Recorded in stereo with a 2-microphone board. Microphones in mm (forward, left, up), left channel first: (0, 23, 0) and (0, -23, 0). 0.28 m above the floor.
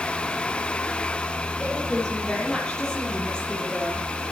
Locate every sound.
1.6 s a woman speaking: 10° left (ahead or behind), 8 m; by 4.1 s 25° left (ahead or behind), 8 m